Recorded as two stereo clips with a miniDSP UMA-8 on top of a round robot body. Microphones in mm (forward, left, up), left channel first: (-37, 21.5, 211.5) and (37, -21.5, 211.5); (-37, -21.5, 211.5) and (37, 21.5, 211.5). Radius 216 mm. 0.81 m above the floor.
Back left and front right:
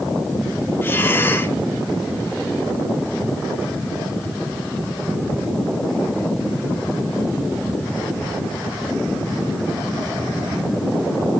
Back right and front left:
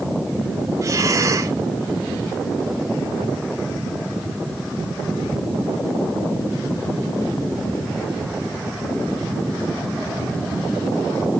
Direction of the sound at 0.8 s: 85° left.